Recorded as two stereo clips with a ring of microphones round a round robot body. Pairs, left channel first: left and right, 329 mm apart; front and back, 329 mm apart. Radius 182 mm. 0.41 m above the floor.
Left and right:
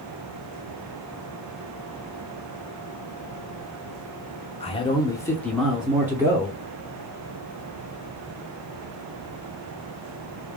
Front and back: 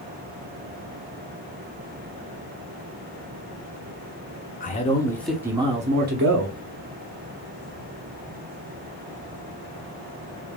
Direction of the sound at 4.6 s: 35° left.